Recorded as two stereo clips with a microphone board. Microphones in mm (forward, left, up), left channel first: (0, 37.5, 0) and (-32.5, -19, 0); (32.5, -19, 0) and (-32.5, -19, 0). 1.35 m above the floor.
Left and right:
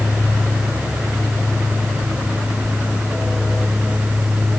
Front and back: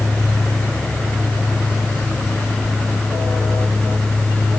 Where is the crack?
No crack in this recording.